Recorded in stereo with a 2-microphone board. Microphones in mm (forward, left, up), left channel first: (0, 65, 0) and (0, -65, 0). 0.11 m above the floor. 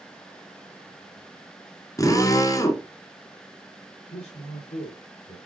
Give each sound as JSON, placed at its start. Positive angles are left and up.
{"t": 2.0, "sound": "a drill", "side_deg": 25, "distance_m": 1.5}
{"t": 4.1, "sound": "a man speaking", "side_deg": 60, "distance_m": 2.5}